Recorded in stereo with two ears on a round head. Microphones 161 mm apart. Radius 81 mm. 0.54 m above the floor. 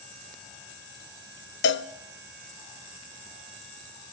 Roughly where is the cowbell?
Left.